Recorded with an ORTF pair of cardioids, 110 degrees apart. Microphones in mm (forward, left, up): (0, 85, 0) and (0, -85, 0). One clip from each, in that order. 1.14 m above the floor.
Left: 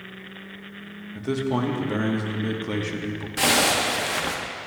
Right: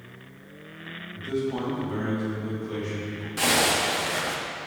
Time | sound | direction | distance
1.1 | a man speaking | 60° left | 1.2 m
3.4 | a zipper | 15° left | 0.9 m